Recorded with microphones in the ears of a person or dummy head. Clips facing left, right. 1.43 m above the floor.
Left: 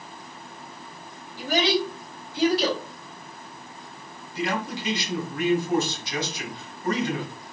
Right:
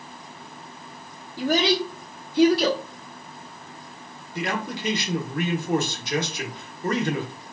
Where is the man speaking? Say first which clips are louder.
Even; 45° right (ahead or behind), 1.0 m.